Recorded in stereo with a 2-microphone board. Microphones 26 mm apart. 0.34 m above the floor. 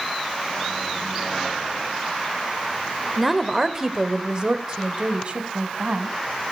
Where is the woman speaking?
Centre (ahead or behind), 1.0 m; by 6.2 s 50° right (ahead or behind), 2 m.